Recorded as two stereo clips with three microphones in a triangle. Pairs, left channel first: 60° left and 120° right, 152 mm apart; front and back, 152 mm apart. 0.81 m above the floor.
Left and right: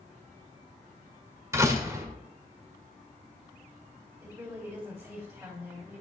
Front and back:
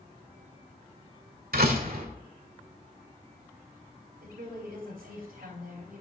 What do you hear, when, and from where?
1.5 s a door slam: 170° left, 1.6 m
4.2 s a woman speaking: 170° left, 3 m